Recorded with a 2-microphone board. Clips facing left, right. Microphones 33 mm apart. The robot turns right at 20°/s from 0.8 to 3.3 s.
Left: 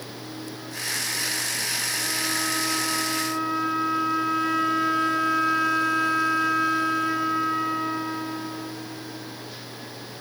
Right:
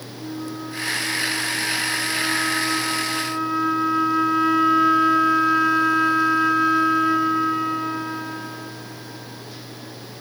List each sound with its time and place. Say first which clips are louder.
0.2 s a flute: right 10 dB; 25° right (ahead or behind), 0.5 m; by 9.9 s 5° right (ahead or behind), 0.5 m